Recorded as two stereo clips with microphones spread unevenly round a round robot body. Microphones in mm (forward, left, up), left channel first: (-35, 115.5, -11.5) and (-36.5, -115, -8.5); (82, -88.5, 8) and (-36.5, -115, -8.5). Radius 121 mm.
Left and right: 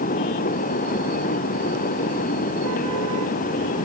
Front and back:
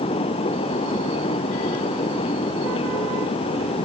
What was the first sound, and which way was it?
Only background noise.